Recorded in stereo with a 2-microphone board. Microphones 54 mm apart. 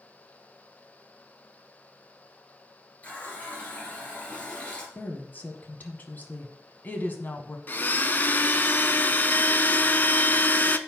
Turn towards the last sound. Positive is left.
turn(degrees=35)  # may be behind; listen again after turning